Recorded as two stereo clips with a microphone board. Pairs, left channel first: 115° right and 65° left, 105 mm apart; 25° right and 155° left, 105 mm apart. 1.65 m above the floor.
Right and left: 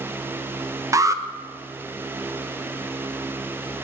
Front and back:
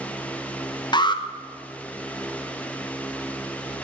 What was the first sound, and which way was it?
An alarm, 10° left.